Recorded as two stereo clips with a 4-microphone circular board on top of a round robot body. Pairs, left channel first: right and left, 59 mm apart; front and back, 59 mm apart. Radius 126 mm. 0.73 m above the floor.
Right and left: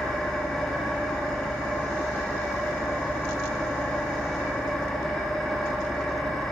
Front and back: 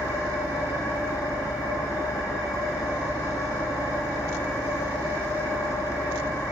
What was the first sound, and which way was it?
An engine running, straight ahead.